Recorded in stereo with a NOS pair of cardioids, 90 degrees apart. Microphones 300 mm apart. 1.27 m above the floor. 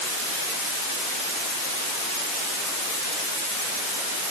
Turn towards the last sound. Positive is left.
No sound to turn to.